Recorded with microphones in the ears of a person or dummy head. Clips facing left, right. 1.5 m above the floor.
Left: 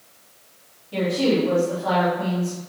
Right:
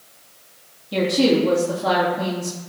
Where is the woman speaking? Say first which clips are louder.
Right 3 dB; 55° right (ahead or behind), 3 m.